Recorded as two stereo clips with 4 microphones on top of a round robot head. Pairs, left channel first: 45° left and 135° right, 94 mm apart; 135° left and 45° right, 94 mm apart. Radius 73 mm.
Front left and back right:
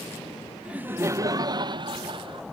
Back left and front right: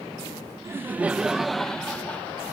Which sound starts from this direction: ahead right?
Laughter, at 0.7 s.